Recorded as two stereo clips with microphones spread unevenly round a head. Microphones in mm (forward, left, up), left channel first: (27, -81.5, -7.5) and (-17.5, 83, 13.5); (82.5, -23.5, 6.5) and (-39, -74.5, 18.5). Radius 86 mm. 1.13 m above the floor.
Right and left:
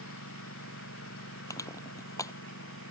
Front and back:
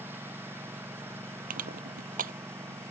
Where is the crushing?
150° right.